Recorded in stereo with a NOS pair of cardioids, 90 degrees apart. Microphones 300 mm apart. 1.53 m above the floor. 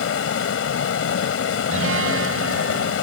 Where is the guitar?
45° right.